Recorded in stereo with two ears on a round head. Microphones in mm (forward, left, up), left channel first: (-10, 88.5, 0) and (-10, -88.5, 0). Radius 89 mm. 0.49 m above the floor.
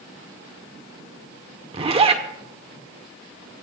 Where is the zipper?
30° right (ahead or behind), 1.4 m.